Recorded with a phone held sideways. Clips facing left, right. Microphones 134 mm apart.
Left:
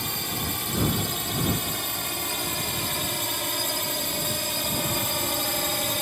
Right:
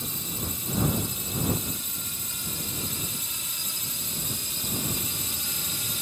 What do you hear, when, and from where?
0.0 s a drone: 70° left (ahead or behind); by 6.0 s 65° left (ahead or behind)